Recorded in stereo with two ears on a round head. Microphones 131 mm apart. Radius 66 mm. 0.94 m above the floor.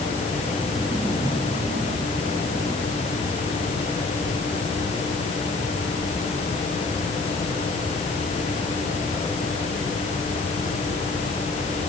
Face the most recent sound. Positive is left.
No sound to turn to.